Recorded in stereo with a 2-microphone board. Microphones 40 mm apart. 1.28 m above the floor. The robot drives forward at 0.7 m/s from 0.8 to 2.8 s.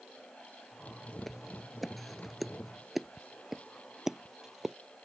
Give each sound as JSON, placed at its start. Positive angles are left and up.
{"t": 1.2, "sound": "footsteps", "side_deg": 5}